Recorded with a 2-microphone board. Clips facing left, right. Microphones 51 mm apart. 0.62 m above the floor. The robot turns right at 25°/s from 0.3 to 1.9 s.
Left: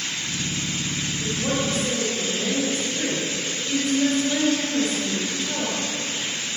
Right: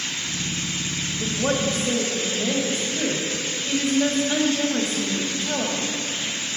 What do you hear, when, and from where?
1.2 s a woman speaking: 35° right (ahead or behind), 2.0 m; by 5.8 s 20° right (ahead or behind), 2.0 m